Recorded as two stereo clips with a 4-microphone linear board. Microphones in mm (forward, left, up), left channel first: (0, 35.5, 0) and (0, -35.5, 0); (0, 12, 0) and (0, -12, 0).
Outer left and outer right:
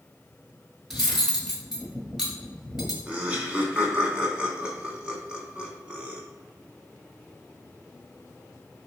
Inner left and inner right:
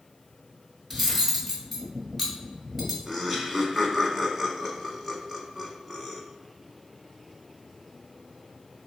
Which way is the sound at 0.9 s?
5° right (ahead or behind).